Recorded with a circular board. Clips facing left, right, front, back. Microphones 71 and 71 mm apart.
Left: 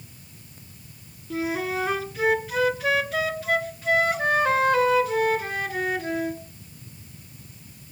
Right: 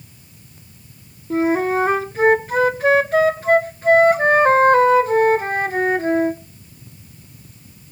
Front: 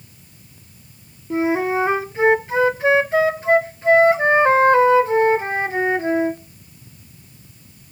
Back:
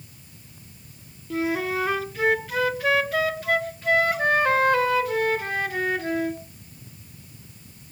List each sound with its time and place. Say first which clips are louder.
1.3 s a flute: right 9 dB, front 6 dB; 55° right, 0.5 m